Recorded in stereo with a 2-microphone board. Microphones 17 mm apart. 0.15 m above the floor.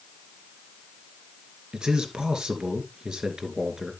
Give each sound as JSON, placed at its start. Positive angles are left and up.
{"t": 1.7, "sound": "a man speaking", "side_deg": -60, "distance_m": 2.0}